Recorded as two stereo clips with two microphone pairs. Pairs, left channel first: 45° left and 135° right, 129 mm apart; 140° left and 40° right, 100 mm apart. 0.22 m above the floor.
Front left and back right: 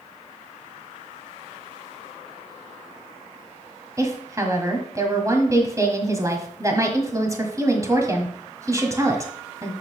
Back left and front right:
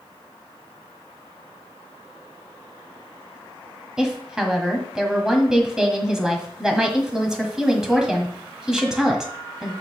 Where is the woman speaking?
120° right, 1.5 m.